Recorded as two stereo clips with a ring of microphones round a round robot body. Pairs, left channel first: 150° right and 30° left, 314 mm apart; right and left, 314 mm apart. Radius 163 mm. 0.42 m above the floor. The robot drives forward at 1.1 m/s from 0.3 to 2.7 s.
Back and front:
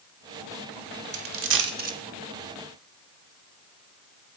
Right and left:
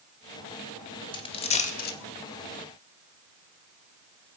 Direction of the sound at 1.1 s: 15° right.